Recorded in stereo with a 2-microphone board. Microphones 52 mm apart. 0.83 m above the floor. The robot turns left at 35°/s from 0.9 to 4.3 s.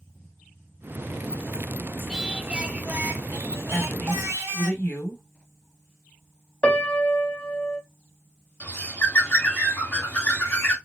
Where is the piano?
15° left (ahead or behind), 1.0 m.